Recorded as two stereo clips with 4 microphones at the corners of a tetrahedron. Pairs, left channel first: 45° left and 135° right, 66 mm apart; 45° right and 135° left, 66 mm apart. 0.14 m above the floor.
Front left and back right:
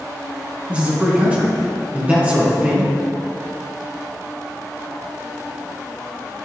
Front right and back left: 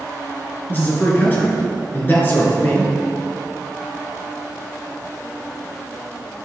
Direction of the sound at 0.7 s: 80° right.